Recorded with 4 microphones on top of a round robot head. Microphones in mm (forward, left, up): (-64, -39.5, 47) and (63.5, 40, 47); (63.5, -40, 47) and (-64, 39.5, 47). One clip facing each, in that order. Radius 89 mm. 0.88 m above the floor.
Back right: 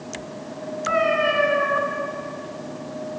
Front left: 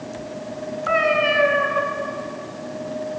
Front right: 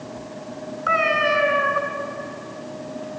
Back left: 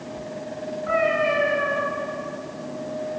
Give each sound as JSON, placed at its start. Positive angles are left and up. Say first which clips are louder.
{"t": 0.9, "sound": "a cat meowing", "louder": "front left 1 dB, back left 1 dB", "azimuth_deg": -55, "distance_m": 2.5}